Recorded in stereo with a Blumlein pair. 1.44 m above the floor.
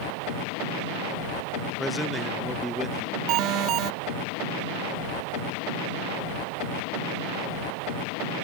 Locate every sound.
1.8 s a man speaking: straight ahead
3.3 s an alarm: 35° right